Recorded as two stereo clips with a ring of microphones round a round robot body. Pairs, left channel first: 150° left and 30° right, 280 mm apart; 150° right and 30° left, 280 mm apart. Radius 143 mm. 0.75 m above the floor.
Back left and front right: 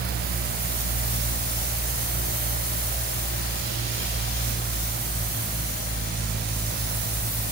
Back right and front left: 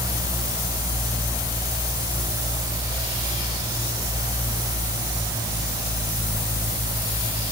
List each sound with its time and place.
Only background noise.